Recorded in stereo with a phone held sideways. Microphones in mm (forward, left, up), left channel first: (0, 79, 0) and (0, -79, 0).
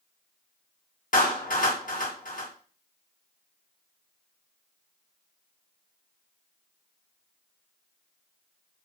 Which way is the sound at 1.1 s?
60° left (ahead or behind).